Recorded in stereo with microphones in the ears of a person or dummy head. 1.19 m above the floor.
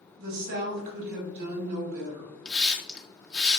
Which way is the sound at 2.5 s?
5° left (ahead or behind).